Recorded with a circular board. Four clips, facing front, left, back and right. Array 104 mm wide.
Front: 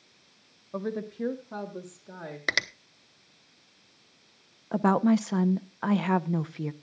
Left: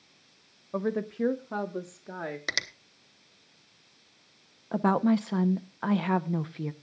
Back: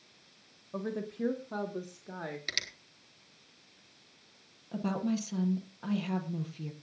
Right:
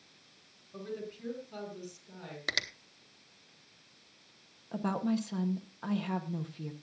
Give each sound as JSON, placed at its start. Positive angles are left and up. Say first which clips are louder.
{"t": 0.7, "sound": "a woman speaking", "louder": "left 11 dB, front 3 dB", "azimuth_deg": 75, "distance_m": 1.0}
{"t": 2.5, "sound": "a finger snap", "louder": "left 3 dB, front 11 dB", "azimuth_deg": 5, "distance_m": 0.8}
{"t": 4.7, "sound": "a woman speaking", "louder": "left 8 dB, front 10 dB", "azimuth_deg": 35, "distance_m": 0.7}